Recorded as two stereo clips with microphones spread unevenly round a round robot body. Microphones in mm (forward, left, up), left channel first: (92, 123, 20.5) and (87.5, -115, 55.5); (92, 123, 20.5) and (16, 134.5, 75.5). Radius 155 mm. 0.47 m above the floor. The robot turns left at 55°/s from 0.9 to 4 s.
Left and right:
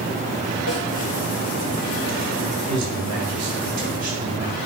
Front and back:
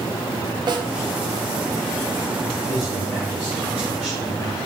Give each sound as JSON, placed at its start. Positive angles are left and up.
{"t": 0.7, "sound": "a snare drum", "azimuth_deg": 145, "distance_m": 1.0}
{"t": 2.7, "sound": "a man speaking", "azimuth_deg": -80, "distance_m": 2.0}